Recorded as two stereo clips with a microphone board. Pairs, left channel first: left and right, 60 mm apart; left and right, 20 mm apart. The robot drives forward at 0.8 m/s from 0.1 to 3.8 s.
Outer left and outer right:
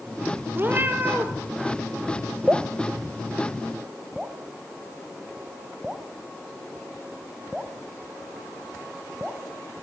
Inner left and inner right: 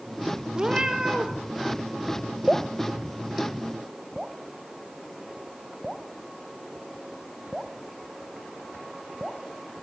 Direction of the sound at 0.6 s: 35° right (ahead or behind).